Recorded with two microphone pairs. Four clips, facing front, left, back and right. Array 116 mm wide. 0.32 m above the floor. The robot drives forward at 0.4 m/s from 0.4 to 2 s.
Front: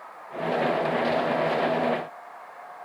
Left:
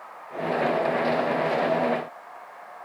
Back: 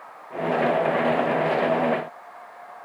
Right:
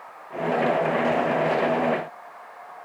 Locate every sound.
Only background noise.